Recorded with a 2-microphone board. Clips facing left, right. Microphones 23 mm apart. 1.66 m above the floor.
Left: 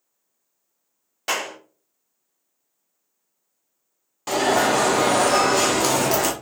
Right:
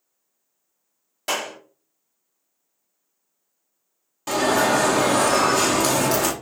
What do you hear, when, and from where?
1.3 s a clap: 15° left (ahead or behind), 1.5 m
4.3 s an alarm: 10° left (ahead or behind), 0.8 m